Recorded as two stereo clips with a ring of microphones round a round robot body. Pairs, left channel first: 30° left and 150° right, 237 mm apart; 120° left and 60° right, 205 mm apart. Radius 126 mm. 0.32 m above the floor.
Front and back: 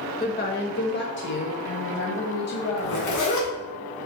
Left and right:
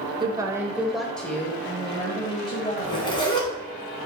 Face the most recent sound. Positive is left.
turn(degrees=55)